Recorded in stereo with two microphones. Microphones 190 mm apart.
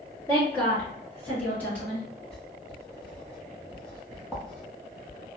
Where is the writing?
5° left (ahead or behind), 1.6 m.